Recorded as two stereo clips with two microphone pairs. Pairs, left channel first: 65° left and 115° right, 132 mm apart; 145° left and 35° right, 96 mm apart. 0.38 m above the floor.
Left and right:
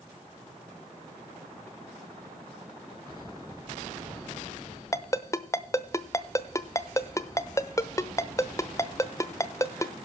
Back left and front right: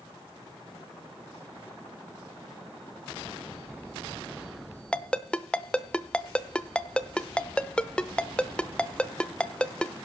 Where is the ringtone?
80° left, 0.7 m.